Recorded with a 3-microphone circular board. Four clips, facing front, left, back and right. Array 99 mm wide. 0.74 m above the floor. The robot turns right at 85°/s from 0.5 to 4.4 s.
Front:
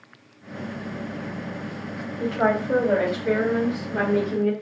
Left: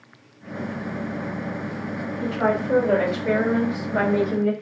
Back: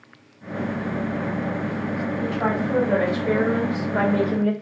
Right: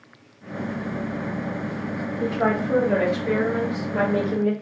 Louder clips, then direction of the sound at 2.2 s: Even, front 4 dB; 15° right.